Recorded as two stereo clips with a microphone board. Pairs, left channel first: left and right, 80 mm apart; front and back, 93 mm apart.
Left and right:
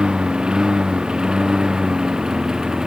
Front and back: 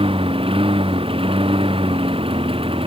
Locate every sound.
0.0 s a lawn mower: 170° right